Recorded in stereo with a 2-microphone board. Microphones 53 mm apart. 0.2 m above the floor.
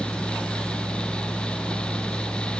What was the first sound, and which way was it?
Only background noise.